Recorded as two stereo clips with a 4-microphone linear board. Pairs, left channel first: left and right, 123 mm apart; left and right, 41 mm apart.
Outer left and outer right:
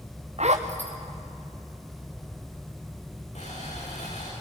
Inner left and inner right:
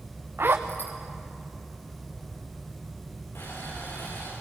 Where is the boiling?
70° left (ahead or behind), 10 m.